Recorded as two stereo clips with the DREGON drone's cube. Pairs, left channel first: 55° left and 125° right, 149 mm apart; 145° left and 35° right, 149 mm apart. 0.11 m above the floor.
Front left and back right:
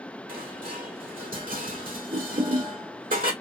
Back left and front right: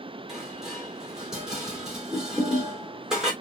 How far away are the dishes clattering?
About 2.5 m.